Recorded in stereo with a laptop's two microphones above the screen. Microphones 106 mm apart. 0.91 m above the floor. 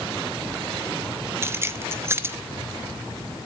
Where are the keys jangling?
25° right (ahead or behind), 1.0 m.